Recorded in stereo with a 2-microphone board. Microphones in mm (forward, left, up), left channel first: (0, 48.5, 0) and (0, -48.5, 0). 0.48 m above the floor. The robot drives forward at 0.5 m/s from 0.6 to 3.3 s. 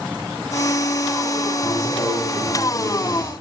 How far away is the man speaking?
About 7.5 m.